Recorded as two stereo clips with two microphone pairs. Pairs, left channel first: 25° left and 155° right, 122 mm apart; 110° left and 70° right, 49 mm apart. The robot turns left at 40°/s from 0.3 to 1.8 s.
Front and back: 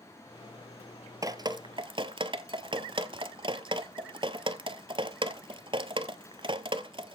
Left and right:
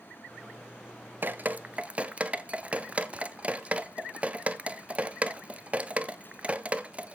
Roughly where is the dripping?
Right.